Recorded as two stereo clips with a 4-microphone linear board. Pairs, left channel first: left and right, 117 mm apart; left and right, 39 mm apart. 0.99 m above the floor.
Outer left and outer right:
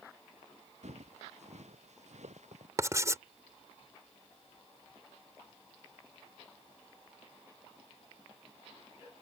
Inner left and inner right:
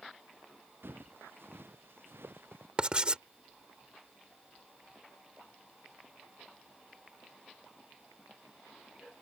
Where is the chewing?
No chewing in this recording.